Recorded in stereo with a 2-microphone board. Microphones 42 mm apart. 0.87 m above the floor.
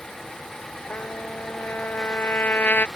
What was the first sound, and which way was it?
A trumpet, 50° left (ahead or behind).